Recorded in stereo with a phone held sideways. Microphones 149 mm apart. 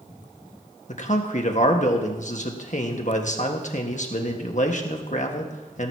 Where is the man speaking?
55° left (ahead or behind), 1.5 m.